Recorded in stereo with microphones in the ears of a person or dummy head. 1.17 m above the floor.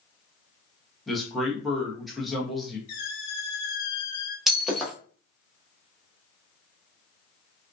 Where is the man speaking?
Centre (ahead or behind), 0.9 m.